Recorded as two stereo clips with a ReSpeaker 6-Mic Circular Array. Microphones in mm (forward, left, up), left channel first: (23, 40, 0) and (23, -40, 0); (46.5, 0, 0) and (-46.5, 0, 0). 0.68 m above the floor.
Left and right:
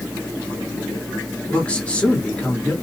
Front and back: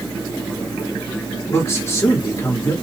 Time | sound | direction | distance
1.5 | a man speaking | 30° left | 1.3 m